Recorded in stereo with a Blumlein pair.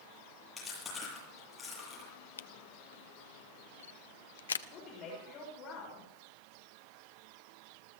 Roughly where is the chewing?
Ahead.